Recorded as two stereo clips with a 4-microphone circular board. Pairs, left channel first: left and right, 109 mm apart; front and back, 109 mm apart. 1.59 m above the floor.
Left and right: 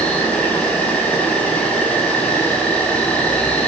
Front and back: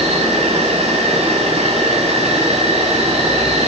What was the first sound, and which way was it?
An insect, 170° left.